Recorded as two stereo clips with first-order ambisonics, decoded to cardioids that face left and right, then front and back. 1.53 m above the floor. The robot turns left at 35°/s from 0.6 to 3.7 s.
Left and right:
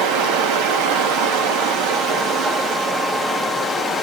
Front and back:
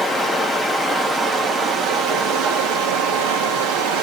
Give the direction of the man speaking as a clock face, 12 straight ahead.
No man speaking in this recording.